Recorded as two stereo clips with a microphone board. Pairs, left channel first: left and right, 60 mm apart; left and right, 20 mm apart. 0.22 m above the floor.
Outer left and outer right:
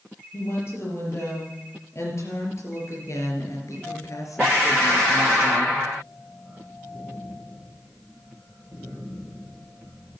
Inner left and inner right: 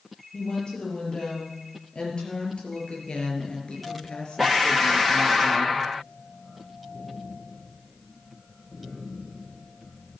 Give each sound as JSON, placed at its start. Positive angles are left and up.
{"t": 0.3, "sound": "a woman speaking", "side_deg": 50, "distance_m": 5.5}